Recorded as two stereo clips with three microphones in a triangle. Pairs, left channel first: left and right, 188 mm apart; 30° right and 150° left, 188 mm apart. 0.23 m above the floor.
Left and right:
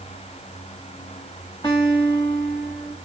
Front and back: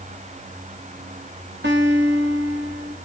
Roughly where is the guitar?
Behind left.